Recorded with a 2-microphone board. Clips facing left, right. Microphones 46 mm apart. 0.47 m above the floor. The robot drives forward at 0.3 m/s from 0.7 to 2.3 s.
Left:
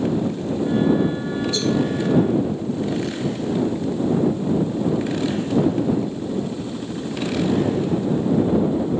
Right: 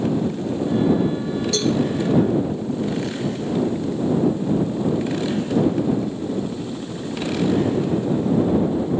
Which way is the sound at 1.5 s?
75° right (ahead or behind).